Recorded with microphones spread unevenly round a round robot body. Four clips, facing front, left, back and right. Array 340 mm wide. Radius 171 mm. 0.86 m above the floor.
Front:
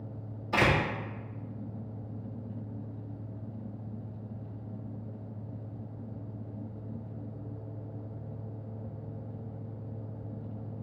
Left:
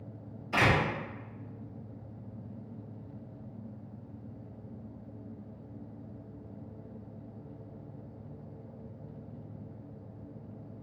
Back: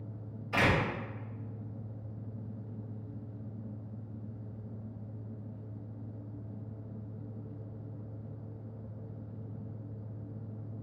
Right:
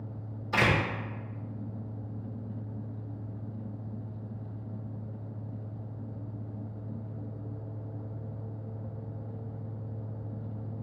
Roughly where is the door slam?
Ahead.